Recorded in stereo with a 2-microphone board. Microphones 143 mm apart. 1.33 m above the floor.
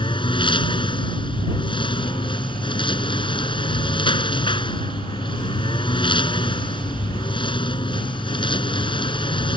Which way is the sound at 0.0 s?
35° left (ahead or behind).